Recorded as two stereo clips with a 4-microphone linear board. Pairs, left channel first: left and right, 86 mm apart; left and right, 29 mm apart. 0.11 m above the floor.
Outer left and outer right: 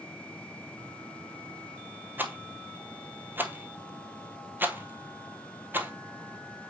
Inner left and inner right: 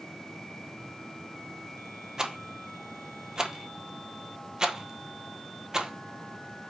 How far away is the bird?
No bird in this recording.